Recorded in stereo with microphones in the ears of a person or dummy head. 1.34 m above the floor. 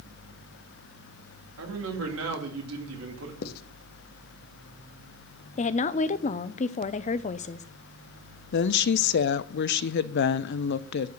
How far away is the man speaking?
About 2.5 m.